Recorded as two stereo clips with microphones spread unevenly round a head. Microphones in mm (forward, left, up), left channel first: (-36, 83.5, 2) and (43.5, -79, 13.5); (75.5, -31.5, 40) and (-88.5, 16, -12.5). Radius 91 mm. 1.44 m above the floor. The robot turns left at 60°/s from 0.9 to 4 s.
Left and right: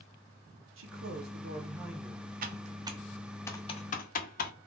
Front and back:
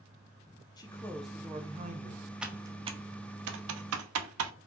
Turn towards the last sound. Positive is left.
turn(degrees=160)